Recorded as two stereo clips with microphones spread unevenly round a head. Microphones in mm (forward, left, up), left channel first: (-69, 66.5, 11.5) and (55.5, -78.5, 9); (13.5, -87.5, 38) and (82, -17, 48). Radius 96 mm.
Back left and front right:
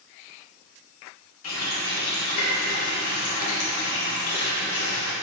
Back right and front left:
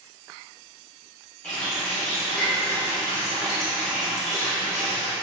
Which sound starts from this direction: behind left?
A running tap, at 1.4 s.